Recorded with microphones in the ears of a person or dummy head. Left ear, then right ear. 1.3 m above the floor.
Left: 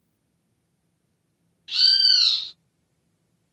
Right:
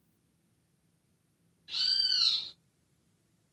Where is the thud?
I don't hear a thud.